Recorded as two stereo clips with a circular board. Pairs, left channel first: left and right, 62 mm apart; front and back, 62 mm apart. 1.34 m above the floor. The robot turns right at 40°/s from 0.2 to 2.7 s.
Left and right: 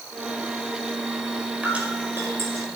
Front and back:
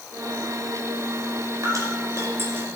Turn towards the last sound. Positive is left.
turn(degrees=-115)